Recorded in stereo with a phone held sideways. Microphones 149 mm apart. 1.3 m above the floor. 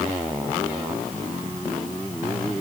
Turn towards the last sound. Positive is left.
No sound to turn to.